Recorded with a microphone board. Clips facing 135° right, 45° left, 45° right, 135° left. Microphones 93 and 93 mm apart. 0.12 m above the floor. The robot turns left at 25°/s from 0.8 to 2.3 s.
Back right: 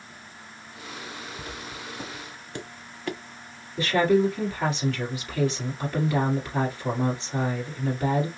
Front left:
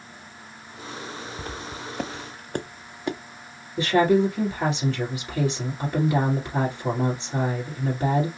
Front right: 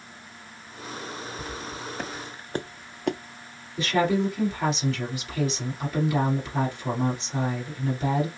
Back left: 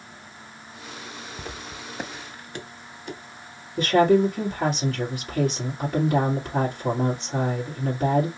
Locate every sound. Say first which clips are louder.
1.4 s footsteps: front left 3 dB, front right 2 dB; 95° left, 1.1 m; by 3.2 s 30° right, 0.9 m
3.8 s a woman speaking: front left 2 dB, back left 6 dB; 105° left, 2.5 m